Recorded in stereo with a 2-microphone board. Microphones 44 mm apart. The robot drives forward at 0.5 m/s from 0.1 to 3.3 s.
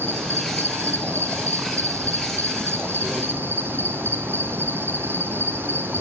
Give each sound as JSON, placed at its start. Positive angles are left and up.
{"t": 0.0, "sound": "an insect", "side_deg": -55, "distance_m": 1.5}